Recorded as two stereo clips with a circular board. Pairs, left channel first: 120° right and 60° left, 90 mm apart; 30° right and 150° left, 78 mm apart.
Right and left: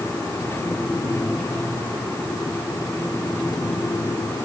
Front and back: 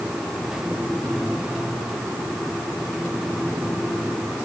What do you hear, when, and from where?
Only background noise.